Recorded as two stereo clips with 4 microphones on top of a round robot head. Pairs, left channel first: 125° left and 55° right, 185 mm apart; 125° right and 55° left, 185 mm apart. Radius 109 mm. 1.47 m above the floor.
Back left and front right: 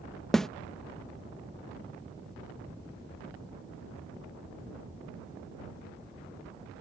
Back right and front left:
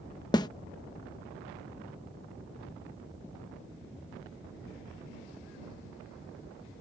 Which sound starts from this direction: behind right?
A snare drum, at 0.3 s.